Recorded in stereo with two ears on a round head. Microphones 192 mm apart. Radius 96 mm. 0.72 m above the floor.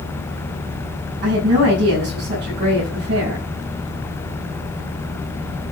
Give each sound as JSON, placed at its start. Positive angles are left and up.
{"t": 1.2, "sound": "a woman speaking", "side_deg": -55, "distance_m": 6.5}